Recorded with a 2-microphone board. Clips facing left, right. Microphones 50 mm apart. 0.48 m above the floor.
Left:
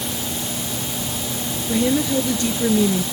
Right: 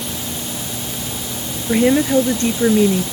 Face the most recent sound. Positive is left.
turn(degrees=-35)  # may be behind; listen again after turning